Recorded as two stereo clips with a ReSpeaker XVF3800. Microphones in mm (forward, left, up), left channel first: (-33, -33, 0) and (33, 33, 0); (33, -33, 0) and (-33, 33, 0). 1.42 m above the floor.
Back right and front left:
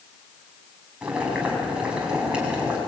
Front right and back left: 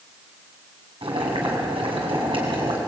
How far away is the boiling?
About 6.5 m.